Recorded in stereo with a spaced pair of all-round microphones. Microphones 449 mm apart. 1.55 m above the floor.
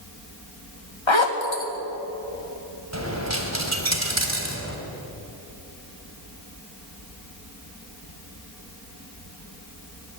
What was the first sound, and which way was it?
A zipper, 85° left.